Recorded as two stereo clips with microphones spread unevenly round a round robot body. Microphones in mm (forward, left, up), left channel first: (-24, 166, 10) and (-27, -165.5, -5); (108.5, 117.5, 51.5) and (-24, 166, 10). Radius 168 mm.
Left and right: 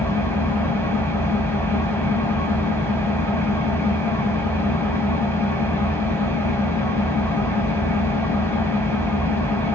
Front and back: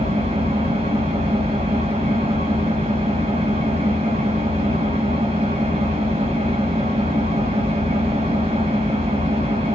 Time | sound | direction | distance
0.0 | an engine running | 175° left | 1.2 m